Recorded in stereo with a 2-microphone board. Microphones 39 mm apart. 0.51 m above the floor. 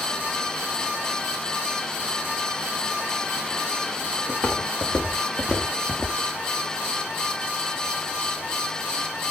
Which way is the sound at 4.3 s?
30° left (ahead or behind).